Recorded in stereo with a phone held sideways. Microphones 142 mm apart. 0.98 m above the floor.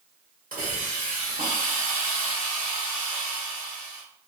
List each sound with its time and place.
0.5 s a hiss: 80° right, 1.5 m